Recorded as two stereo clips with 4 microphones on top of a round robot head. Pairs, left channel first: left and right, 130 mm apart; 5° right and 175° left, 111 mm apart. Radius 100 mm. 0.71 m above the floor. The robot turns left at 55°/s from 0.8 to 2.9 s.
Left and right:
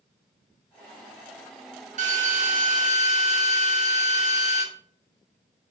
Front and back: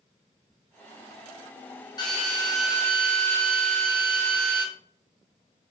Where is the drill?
65° right, 3 m; by 4.6 s 115° right, 3 m.